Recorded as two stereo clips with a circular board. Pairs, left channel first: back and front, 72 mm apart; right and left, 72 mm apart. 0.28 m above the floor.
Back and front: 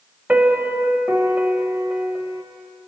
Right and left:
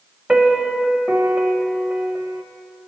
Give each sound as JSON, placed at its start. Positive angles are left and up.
{"t": 0.3, "sound": "a piano", "azimuth_deg": 30, "distance_m": 0.5}